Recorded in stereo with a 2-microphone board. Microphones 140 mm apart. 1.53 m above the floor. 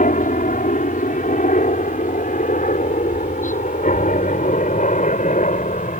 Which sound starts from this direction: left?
A helicopter, at 0.0 s.